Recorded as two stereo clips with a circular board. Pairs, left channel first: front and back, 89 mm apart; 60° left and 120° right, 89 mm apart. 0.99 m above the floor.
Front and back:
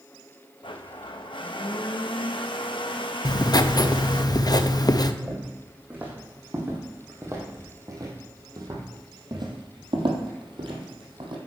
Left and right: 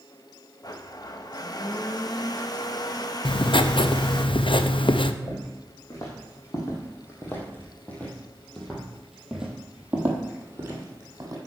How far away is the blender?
About 0.7 m.